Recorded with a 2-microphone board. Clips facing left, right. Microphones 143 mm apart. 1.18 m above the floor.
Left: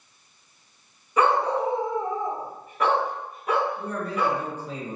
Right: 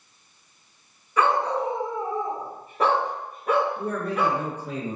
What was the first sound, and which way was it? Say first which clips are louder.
A dog barking: left 1 dB; 15° left (ahead or behind).